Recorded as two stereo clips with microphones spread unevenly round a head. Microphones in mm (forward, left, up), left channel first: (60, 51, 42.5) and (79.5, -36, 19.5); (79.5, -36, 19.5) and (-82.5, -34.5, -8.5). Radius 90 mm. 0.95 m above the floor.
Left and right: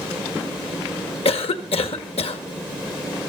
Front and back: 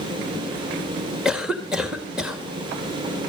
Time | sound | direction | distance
1.2 | a cough | 95° left | 1.7 m